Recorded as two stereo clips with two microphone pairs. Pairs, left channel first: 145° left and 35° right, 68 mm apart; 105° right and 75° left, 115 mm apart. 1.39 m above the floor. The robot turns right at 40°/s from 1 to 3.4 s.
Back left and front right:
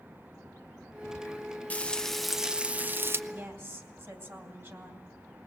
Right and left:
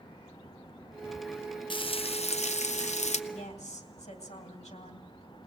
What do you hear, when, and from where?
1.7 s frying: 150° right, 0.7 m; by 3.2 s 90° right, 0.7 m
3.3 s a woman speaking: 90° right, 2.5 m